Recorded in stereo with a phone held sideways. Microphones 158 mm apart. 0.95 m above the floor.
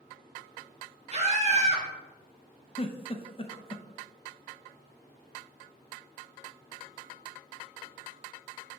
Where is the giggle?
35° left (ahead or behind), 0.5 m.